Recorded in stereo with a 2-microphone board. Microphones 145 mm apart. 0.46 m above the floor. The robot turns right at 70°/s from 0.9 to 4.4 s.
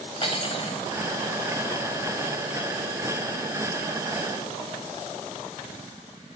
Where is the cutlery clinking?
40° left (ahead or behind), 1.2 m.